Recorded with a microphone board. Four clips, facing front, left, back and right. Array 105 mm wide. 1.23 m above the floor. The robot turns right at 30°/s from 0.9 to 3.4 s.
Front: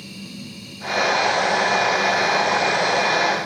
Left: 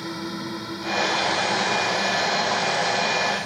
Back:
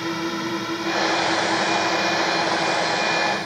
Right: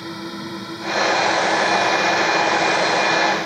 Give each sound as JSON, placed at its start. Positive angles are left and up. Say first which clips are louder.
{"t": 0.0, "sound": "a drone", "louder": "right 1 dB, back 12 dB", "azimuth_deg": 180}